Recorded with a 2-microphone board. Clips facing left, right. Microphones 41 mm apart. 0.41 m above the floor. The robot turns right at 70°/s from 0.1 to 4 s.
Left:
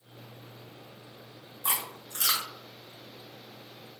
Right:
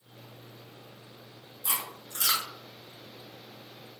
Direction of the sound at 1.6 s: 50° left (ahead or behind).